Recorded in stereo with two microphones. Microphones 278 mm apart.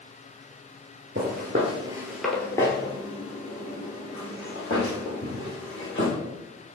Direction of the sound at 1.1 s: 40° right (ahead or behind).